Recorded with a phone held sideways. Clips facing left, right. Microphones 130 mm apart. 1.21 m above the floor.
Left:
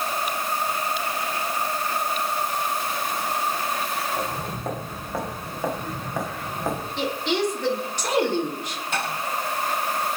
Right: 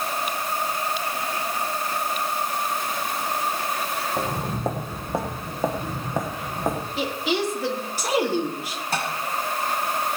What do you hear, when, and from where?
4.2 s footsteps: 35° right (ahead or behind), 3 m; by 6.9 s 15° right (ahead or behind), 4 m
7.0 s a woman speaking: 5° right (ahead or behind), 3 m
8.9 s tapping: 35° right (ahead or behind), 6.5 m